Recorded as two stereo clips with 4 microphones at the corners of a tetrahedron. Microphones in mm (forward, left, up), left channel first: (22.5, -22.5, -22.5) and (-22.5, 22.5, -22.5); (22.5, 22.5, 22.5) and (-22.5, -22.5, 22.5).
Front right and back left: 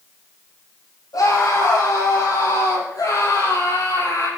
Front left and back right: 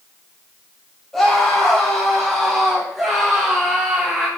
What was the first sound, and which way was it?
A scream, 40° right.